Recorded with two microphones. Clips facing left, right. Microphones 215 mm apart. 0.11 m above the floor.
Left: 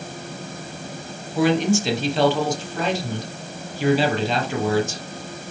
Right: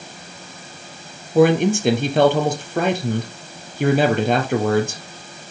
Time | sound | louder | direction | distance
1.4 | a man speaking | right 4 dB | 55° right (ahead or behind) | 2.5 m